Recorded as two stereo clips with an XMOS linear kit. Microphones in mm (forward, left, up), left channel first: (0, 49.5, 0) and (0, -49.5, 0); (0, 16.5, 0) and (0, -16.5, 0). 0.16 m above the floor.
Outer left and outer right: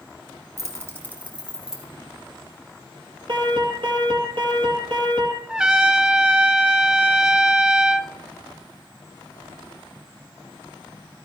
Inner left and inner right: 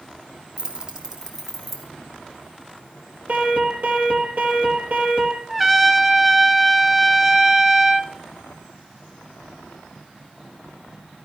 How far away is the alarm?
About 3.5 m.